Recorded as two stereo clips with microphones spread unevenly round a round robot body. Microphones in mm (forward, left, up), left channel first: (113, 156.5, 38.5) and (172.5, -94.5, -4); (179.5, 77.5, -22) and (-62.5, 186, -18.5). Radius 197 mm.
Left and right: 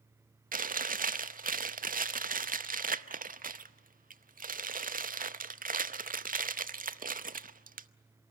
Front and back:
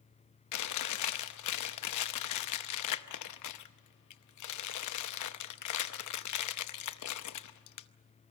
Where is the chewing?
15° right, 0.8 m.